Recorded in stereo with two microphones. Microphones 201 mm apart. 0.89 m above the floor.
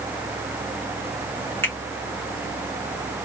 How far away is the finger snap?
About 2.5 m.